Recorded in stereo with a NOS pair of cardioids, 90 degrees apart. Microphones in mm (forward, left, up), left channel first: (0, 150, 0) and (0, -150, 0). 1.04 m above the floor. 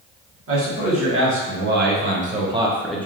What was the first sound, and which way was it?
A man speaking, 50° right.